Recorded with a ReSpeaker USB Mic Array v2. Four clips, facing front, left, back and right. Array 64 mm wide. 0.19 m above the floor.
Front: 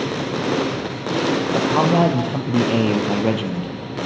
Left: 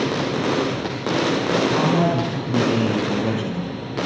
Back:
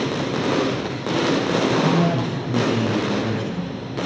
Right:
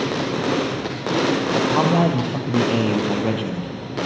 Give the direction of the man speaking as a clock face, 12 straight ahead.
1 o'clock.